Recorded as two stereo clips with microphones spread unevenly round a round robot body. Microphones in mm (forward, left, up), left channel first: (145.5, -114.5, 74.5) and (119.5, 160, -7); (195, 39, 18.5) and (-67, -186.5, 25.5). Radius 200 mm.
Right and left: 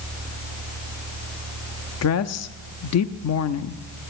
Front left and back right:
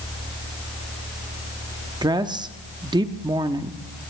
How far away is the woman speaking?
About 0.8 m.